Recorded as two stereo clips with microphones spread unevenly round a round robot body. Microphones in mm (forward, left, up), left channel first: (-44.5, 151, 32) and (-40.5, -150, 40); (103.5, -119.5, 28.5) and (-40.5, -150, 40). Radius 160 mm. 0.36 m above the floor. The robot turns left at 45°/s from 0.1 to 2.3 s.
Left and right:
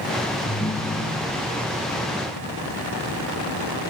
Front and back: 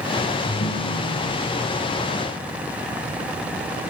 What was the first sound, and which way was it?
A ringtone, 25° left.